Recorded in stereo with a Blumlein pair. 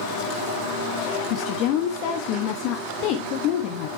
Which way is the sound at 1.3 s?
40° left.